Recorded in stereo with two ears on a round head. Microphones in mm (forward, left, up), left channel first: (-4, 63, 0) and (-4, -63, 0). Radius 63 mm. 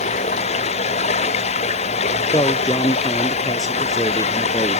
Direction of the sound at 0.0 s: 50° left (ahead or behind).